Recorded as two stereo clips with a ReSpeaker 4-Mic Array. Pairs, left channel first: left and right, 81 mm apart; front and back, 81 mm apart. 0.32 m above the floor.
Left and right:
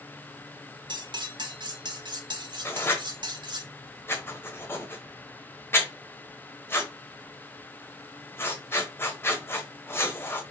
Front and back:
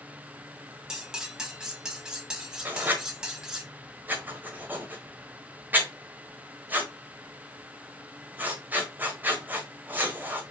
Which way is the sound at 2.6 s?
125° left.